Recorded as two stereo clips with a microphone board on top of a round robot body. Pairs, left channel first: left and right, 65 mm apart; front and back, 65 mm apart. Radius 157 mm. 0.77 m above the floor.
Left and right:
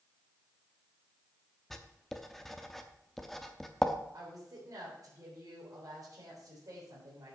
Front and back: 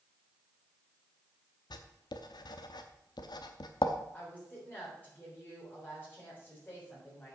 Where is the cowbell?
I don't hear a cowbell.